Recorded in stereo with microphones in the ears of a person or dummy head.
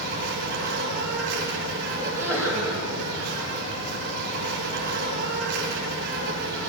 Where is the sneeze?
10° right (ahead or behind), 7.5 m.